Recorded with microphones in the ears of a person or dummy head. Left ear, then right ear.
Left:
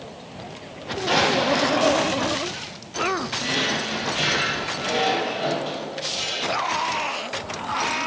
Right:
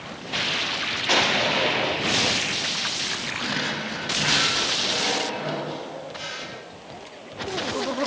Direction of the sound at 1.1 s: 70° right (ahead or behind).